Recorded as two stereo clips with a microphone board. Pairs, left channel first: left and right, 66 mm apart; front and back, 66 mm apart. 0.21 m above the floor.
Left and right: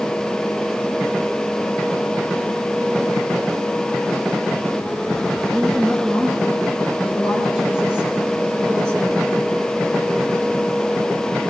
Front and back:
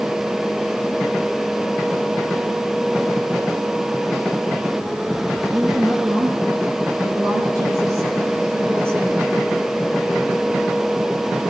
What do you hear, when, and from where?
5.5 s a woman speaking: 170° left, 4 m; by 9.4 s 125° right, 2.5 m